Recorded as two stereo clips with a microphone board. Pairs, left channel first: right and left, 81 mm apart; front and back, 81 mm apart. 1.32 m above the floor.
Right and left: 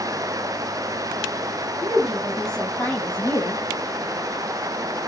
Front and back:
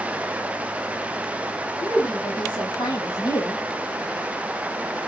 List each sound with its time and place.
1.8 s a woman speaking: 5° left, 2.0 m; by 3.6 s 45° right, 1.4 m